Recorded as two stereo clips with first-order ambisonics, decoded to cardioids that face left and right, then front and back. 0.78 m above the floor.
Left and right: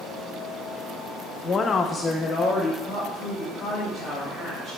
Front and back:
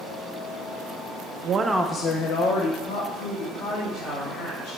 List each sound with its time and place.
1.4 s a woman speaking: 150° left, 0.6 m; by 4.8 s straight ahead, 3.5 m